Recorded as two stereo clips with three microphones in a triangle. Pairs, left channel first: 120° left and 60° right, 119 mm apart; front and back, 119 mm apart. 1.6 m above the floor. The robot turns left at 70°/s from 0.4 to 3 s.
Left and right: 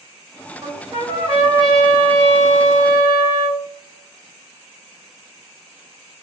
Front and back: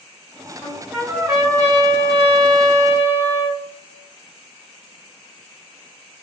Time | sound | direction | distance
0.6 | a trumpet | 75° right | 1.8 m